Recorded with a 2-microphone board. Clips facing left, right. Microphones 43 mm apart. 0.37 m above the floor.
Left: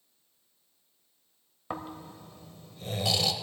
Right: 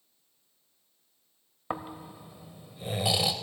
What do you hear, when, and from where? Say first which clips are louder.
1.7 s snoring: right 2 dB; 20° right (ahead or behind), 0.6 m